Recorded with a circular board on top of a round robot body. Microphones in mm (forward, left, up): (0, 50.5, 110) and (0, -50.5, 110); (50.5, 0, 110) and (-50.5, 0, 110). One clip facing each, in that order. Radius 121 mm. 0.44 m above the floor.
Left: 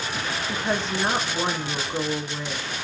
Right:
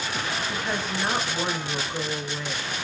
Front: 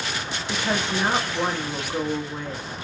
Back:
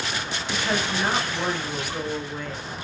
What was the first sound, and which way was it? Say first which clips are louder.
A woman speaking: left 3 dB, front 1 dB; 50° left.